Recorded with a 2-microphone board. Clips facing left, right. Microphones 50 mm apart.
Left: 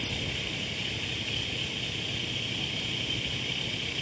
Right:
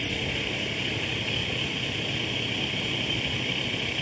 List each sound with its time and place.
0.0 s a vehicle: 25° right (ahead or behind)